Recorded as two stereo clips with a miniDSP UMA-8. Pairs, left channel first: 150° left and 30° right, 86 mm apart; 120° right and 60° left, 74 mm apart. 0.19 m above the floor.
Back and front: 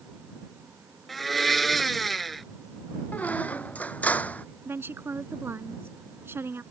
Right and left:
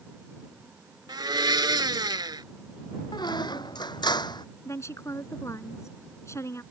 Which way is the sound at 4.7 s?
85° right.